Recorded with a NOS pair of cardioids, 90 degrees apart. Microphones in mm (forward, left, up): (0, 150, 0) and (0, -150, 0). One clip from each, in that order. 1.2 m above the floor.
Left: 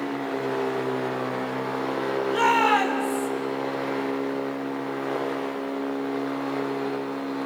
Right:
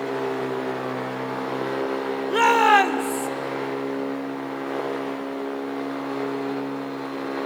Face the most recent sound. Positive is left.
turn(degrees=-60)